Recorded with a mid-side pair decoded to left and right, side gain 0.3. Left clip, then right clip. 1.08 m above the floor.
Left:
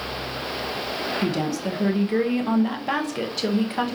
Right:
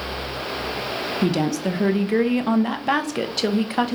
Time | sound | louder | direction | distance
1.2 | a woman speaking | right 3 dB | 45° right | 0.7 m